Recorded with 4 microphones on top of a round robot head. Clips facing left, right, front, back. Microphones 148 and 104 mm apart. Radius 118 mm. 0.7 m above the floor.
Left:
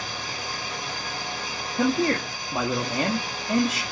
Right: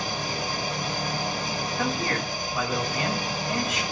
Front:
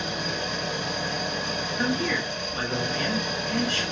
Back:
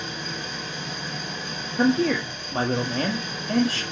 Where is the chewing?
No chewing in this recording.